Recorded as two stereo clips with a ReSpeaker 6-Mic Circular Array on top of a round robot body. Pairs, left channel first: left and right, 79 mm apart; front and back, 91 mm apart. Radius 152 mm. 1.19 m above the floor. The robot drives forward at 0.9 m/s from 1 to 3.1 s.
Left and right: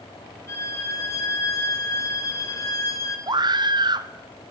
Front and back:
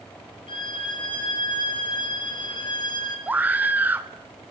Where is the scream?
110° right, 1.2 m.